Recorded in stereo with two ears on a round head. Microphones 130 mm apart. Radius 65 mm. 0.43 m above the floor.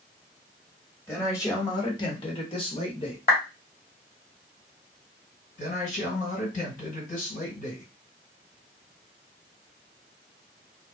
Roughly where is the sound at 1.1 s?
Centre.